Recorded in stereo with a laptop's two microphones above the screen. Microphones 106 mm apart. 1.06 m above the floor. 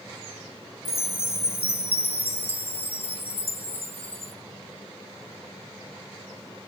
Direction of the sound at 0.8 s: 65° left (ahead or behind).